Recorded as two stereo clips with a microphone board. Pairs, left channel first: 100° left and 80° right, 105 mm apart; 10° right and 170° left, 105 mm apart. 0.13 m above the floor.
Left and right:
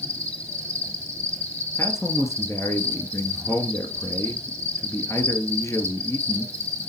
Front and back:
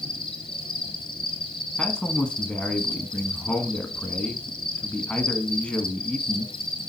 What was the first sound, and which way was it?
An insect, 25° left.